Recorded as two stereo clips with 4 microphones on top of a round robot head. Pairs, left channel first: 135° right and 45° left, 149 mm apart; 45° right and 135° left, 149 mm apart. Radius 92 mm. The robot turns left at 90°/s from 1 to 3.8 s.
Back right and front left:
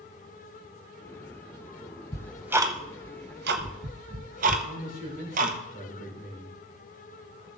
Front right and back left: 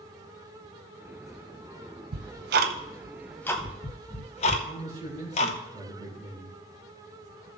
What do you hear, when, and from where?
2.1 s ticking: 155° left, 0.7 m; by 5.6 s 5° left, 0.7 m
4.6 s a man speaking: 165° right, 5 m